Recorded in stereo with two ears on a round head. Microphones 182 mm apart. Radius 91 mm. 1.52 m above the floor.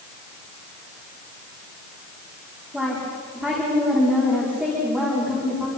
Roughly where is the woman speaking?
Centre.